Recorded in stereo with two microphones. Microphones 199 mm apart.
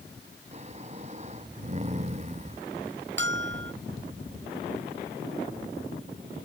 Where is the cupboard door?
I don't hear a cupboard door.